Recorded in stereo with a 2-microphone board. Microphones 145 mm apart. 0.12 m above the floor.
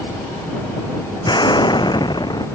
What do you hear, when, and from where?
1.2 s an explosion: 30° left (ahead or behind)